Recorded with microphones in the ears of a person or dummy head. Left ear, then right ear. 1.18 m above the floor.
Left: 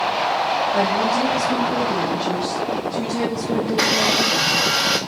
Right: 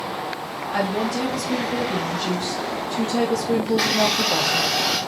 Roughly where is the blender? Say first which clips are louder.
Left 3 dB; centre.